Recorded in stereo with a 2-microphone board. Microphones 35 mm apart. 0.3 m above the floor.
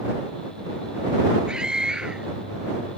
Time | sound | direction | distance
1.5 | a scream | 25° right (ahead or behind) | ?